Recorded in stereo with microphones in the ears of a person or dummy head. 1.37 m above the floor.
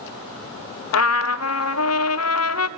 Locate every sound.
0.9 s a trumpet: 75° left (ahead or behind), 0.6 m